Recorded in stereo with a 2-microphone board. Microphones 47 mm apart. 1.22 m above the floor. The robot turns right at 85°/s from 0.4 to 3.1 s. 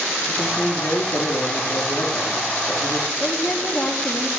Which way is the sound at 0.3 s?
5° left.